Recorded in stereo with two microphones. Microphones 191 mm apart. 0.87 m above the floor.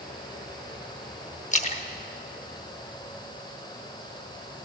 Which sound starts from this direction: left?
A splash, at 1.5 s.